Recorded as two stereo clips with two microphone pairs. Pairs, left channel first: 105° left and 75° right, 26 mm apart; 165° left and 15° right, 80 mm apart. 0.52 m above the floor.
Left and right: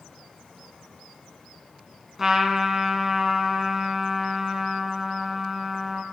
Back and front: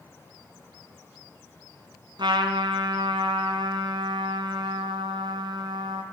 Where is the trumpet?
Straight ahead, 1.7 m.